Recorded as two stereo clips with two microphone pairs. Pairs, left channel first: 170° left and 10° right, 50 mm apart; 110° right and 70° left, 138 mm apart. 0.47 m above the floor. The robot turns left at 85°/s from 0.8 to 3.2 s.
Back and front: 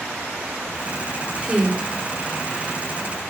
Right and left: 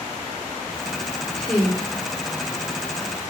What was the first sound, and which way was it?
A woman speaking, 30° right.